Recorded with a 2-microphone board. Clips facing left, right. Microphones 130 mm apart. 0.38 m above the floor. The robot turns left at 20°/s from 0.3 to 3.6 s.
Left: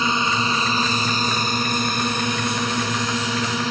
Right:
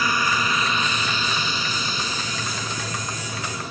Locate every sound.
0.0 s a drone: 155° left; by 3.7 s 90° left